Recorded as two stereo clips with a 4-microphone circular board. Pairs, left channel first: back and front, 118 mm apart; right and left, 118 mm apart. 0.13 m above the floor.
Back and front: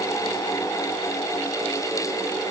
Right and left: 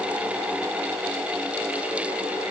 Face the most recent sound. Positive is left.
No sound to turn to.